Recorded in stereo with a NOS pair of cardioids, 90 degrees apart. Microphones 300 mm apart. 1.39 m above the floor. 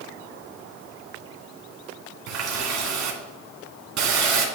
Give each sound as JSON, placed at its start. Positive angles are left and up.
{"t": 2.3, "sound": "a running tap", "azimuth_deg": -70, "distance_m": 2.5}